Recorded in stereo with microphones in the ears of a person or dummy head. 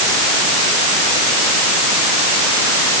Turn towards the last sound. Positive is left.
No sound to turn to.